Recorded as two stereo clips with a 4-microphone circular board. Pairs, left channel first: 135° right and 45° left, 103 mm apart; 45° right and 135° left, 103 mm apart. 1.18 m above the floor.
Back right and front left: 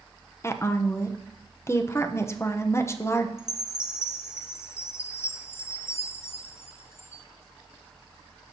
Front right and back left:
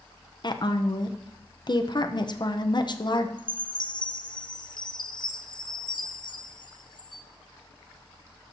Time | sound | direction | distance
0.4 | a woman speaking | 75° right | 0.7 m
3.4 | a chime | 75° right | 0.6 m